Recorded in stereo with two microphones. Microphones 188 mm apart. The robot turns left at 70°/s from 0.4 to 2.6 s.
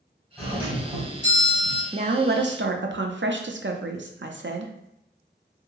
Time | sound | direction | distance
0.4 | a doorbell | 5° left | 1.9 m
1.9 | a woman speaking | 35° right | 0.5 m